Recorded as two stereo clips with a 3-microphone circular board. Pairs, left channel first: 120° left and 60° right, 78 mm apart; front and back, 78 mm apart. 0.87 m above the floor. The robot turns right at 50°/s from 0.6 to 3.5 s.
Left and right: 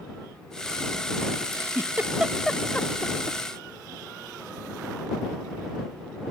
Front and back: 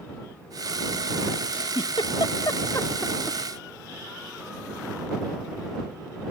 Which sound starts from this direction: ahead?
A giggle, at 1.5 s.